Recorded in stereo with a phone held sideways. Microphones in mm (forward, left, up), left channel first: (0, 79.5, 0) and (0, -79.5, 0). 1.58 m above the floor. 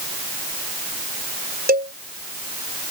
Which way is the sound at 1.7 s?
75° right (ahead or behind).